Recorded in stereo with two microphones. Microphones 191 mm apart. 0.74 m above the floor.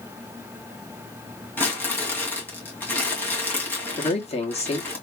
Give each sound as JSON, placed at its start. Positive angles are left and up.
{"t": 1.6, "sound": "crumpling", "side_deg": 10, "distance_m": 2.0}
{"t": 4.0, "sound": "a man speaking", "side_deg": 35, "distance_m": 1.5}